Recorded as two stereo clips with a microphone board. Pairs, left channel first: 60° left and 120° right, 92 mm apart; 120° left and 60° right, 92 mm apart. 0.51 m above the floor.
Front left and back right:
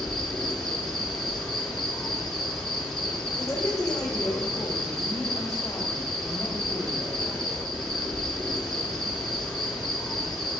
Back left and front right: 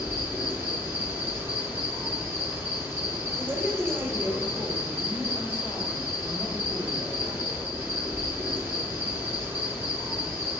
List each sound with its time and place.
0.0 s an insect: 25° right, 2.5 m
3.4 s a woman speaking: straight ahead, 2.5 m